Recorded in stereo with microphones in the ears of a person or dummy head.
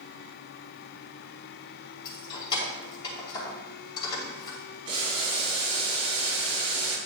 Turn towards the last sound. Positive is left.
turn(degrees=-35)  # may be behind; listen again after turning